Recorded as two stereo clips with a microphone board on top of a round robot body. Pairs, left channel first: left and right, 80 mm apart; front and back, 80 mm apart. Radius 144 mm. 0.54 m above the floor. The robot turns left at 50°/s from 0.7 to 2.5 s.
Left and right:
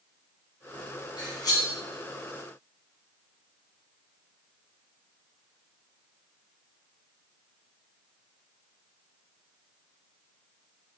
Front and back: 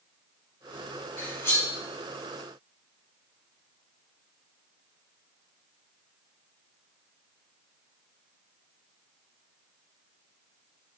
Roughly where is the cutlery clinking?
Left.